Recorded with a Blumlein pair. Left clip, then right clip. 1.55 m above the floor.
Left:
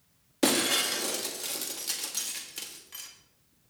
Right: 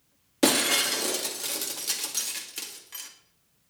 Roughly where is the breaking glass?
Ahead.